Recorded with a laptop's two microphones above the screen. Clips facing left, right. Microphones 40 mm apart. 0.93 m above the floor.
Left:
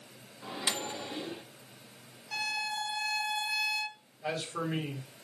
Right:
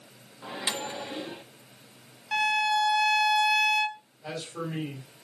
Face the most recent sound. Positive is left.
turn(degrees=25)  # may be behind; listen again after turning